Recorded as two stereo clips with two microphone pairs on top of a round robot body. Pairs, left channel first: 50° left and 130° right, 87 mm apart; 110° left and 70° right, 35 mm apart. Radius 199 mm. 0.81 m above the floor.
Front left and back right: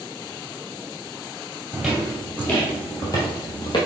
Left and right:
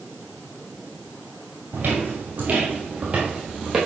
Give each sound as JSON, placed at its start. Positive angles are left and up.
{"t": 1.7, "sound": "footsteps", "azimuth_deg": -55, "distance_m": 1.4}